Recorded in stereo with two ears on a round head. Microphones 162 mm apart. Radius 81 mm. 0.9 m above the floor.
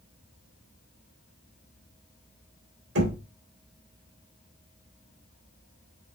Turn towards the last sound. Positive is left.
turn(degrees=-75)  # may be behind; listen again after turning